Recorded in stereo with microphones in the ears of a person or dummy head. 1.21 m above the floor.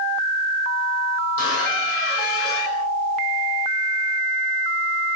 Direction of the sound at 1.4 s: 60° left (ahead or behind).